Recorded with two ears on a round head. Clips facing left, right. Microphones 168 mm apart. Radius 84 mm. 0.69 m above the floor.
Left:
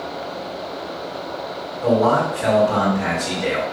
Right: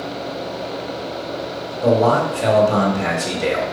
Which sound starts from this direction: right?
A man speaking, at 1.8 s.